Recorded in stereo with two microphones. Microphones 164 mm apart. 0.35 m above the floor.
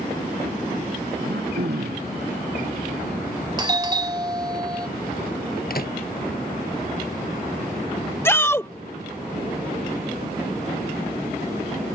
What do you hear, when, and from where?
1.2 s throat clearing: 85° right
3.6 s a doorbell: 25° right (ahead or behind)
5.7 s a microwave: 65° left (ahead or behind)
8.2 s a shout: 15° left (ahead or behind)